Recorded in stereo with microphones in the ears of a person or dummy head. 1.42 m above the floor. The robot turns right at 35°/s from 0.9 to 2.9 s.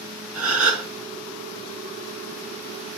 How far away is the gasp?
About 1.5 m.